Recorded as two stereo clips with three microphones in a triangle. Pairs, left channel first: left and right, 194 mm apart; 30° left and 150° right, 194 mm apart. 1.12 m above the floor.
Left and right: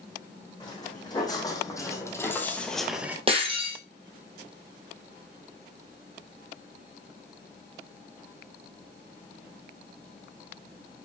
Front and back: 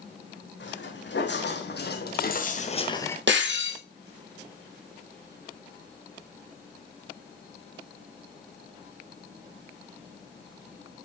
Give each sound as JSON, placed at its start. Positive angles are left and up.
{"t": 0.6, "sound": "footsteps", "azimuth_deg": 25, "distance_m": 3.5}
{"t": 3.3, "sound": "breaking glass", "azimuth_deg": -150, "distance_m": 3.5}